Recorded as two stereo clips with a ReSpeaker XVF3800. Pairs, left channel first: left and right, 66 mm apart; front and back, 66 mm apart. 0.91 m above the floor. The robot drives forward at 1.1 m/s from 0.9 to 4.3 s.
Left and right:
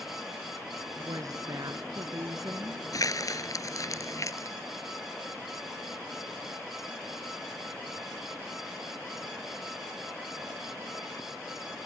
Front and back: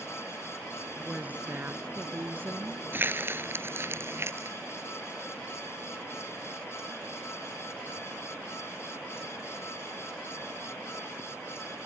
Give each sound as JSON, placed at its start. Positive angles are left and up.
{"t": 1.1, "sound": "a woman speaking", "azimuth_deg": -110}
{"t": 2.9, "sound": "crumpling", "azimuth_deg": 120}